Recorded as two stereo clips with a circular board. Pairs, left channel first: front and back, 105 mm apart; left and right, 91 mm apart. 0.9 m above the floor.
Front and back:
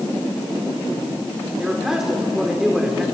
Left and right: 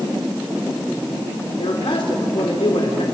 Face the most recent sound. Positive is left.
turn(degrees=95)